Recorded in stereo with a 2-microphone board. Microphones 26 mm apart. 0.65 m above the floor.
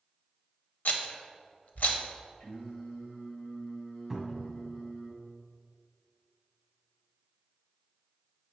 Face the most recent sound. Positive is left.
turn(degrees=5)  # may be behind; listen again after turning